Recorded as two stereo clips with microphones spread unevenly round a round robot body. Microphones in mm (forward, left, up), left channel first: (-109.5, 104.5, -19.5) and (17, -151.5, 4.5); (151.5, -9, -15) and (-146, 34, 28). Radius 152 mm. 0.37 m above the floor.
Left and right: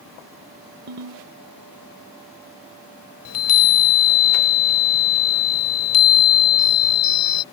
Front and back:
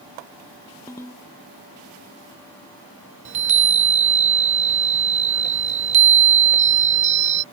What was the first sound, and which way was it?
A ringtone, 60° right.